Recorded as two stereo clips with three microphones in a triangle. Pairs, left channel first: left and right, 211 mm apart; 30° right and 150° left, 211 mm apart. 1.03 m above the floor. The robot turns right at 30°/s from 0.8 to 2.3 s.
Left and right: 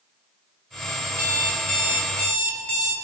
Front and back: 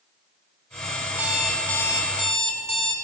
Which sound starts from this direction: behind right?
An alarm clock, at 1.1 s.